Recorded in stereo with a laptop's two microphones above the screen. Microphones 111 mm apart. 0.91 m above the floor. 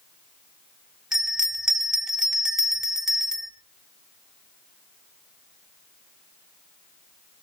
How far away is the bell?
About 1.1 m.